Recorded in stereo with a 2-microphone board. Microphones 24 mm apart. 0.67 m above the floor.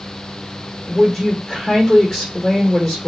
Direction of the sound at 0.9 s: 25° left (ahead or behind).